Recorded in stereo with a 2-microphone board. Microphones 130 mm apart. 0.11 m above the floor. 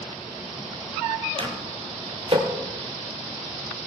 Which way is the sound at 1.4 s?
45° right (ahead or behind).